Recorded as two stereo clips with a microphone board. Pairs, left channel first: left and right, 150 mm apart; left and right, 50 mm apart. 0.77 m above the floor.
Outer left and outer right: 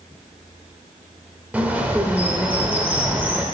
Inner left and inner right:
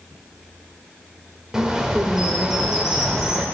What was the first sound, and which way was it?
A bird, 10° right (ahead or behind).